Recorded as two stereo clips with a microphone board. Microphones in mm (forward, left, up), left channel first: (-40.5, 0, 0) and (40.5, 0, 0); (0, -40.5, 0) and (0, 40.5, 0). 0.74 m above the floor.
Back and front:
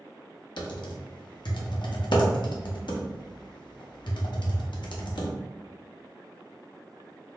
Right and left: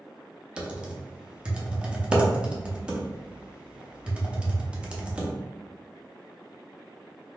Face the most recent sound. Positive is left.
turn(degrees=165)